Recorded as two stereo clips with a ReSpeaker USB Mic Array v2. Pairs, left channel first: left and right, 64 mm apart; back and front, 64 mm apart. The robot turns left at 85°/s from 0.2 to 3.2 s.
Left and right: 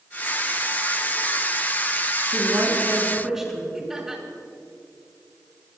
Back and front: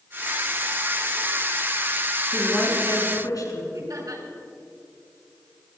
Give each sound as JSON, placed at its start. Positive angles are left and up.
{"t": 2.3, "sound": "a woman speaking", "azimuth_deg": -100, "distance_m": 5.0}
{"t": 3.7, "sound": "laughter", "azimuth_deg": -5, "distance_m": 4.0}